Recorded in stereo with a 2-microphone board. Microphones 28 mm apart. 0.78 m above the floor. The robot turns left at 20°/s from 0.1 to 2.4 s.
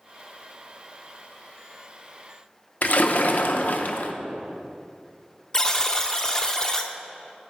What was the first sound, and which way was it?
A splash, 60° left (ahead or behind).